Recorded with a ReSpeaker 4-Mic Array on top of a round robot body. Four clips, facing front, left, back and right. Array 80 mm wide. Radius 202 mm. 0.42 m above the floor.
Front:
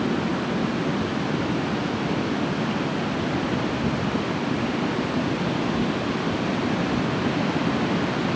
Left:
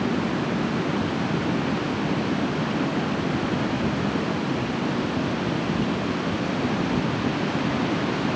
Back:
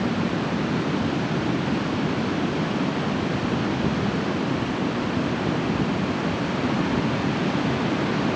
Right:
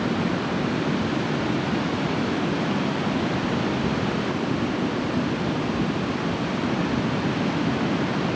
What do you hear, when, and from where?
Only background noise.